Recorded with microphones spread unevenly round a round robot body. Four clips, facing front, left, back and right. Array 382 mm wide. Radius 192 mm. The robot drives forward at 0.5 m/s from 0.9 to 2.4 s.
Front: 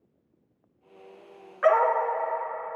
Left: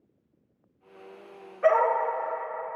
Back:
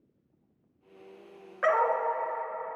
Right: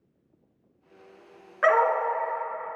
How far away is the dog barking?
About 2.5 m.